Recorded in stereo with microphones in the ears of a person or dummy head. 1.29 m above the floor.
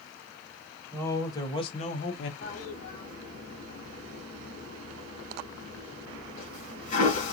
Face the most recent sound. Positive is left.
turn(degrees=45)  # may be behind; listen again after turning